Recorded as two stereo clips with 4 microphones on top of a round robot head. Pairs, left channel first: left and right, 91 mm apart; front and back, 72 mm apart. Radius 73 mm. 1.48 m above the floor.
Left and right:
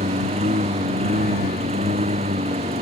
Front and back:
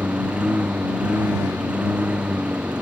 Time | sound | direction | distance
0.0 | a lawn mower | 100° right | ?